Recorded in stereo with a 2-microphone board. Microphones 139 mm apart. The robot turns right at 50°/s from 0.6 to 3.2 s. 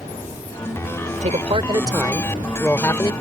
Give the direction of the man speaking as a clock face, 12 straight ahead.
2 o'clock.